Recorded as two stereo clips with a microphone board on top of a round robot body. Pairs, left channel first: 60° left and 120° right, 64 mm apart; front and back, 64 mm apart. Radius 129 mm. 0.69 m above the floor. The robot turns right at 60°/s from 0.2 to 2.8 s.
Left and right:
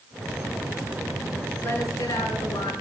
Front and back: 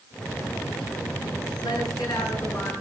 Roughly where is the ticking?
No ticking in this recording.